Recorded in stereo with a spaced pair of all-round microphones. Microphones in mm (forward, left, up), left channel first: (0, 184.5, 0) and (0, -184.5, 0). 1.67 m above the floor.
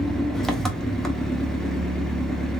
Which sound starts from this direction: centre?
An engine running, at 0.0 s.